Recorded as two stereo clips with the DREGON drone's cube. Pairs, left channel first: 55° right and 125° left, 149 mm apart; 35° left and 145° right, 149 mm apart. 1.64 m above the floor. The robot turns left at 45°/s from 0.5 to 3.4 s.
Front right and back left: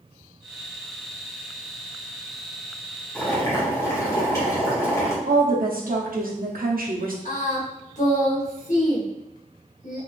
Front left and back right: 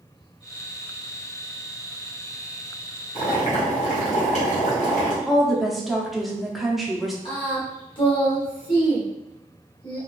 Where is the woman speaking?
125° left, 0.6 m.